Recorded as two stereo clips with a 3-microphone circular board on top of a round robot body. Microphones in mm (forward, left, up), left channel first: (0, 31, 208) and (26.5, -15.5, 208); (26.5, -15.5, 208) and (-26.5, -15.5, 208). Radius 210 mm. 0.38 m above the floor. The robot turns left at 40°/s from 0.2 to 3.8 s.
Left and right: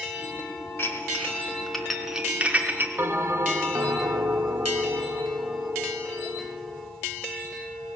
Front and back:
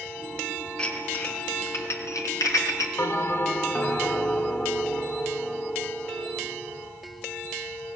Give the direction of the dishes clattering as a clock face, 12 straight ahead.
9 o'clock.